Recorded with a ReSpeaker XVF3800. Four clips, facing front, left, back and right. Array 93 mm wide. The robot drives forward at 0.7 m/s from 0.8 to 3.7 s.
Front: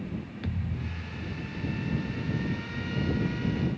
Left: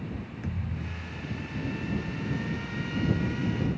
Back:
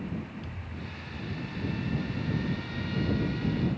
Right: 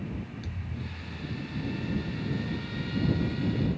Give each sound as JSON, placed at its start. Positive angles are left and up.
{"t": 0.4, "sound": "a thud", "azimuth_deg": 30}